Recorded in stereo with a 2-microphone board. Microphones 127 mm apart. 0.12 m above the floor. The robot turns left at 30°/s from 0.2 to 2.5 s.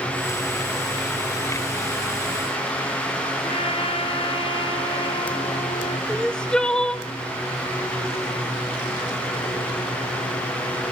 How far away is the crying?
About 0.6 m.